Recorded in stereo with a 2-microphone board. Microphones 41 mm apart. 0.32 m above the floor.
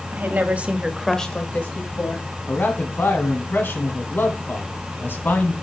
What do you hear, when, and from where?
0.1 s a woman speaking: 55° right (ahead or behind), 1.4 m; by 2.3 s 60° left (ahead or behind), 1.7 m
2.5 s a man speaking: 60° left (ahead or behind), 2.0 m